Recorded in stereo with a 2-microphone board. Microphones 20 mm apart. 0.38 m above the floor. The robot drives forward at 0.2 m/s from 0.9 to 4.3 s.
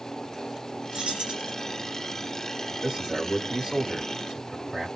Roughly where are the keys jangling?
Right.